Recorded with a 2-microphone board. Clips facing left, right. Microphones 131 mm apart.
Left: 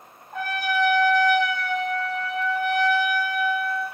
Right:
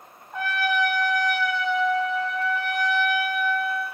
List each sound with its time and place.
0.3 s a trumpet: 55° left (ahead or behind), 0.9 m